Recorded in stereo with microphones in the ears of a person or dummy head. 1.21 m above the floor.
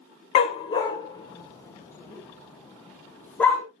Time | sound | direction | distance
0.3 | a dog barking | 35° left (ahead or behind) | 1.6 m